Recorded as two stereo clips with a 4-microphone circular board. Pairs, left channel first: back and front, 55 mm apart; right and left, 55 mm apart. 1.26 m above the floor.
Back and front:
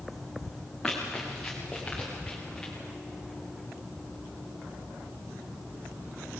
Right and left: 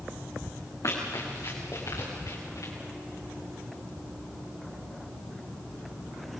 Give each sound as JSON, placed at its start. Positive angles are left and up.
{"t": 0.8, "sound": "running footsteps", "azimuth_deg": -95, "distance_m": 4.5}